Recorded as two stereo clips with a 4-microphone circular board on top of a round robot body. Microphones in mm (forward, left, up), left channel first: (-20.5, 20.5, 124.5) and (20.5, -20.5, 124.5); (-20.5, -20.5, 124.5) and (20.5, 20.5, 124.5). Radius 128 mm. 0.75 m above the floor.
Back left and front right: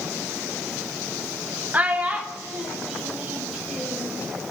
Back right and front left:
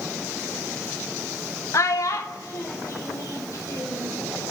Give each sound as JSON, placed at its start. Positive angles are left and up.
{"t": 1.7, "sound": "a child speaking", "azimuth_deg": -105, "distance_m": 0.7}